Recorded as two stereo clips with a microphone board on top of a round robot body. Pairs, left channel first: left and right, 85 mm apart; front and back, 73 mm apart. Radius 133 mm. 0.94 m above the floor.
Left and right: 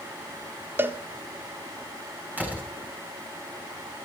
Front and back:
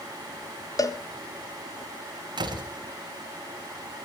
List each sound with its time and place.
0.8 s a cowbell: 30° right, 1.6 m
2.4 s a door slam: 160° right, 4.5 m